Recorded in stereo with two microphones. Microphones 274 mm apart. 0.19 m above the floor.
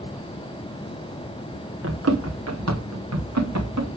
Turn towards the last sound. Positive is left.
turn(degrees=-80)